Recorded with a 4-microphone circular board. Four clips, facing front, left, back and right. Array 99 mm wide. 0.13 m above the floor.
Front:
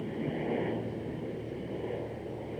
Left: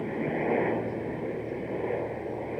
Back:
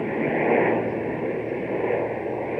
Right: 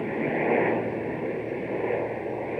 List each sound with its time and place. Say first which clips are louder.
0.0 s a helicopter: right 3 dB, back 11 dB; 165° right